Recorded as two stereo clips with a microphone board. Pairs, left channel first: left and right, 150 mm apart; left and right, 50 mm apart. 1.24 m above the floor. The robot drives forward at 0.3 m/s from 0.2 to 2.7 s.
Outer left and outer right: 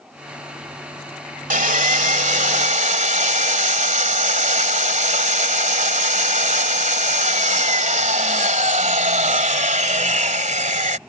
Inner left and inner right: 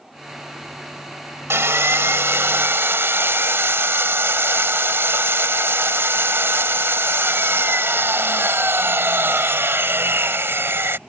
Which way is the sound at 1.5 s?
60° right (ahead or behind).